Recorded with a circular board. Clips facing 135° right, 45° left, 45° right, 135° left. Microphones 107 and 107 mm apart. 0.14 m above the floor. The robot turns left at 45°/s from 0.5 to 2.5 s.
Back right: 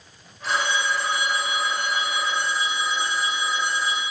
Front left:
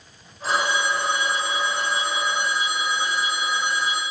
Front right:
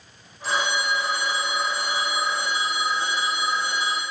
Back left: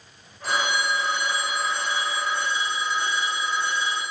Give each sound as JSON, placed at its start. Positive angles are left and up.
{"t": 0.4, "sound": "a phone ringing", "azimuth_deg": 95, "distance_m": 4.0}